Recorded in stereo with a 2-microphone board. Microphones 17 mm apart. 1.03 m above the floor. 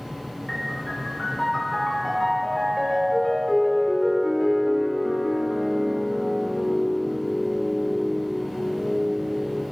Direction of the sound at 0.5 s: 20° left (ahead or behind).